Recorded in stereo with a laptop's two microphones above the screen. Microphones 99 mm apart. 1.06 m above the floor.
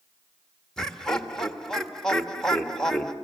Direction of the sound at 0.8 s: 5° left (ahead or behind).